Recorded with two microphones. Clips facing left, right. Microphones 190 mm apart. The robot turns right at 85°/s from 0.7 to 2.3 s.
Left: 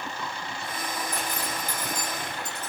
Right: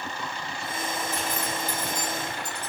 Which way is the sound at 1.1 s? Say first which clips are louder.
Right 2 dB; 55° left (ahead or behind).